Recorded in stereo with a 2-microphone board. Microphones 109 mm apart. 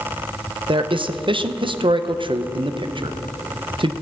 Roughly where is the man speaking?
Right.